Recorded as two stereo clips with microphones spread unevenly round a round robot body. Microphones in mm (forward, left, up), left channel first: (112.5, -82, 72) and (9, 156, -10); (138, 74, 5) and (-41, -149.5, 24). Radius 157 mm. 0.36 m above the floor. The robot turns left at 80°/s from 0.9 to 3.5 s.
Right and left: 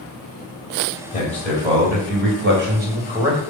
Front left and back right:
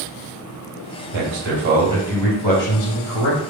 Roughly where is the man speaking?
Behind right.